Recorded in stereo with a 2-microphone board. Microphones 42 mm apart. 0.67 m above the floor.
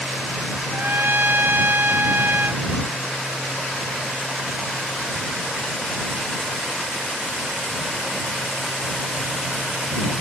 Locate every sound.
0.7 s a trumpet: 70° right (ahead or behind)